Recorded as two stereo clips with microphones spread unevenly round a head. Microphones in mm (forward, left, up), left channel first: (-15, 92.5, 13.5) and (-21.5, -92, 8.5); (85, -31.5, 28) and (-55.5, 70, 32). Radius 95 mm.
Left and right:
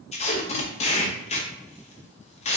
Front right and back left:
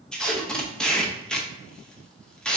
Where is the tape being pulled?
45° left, 0.6 m.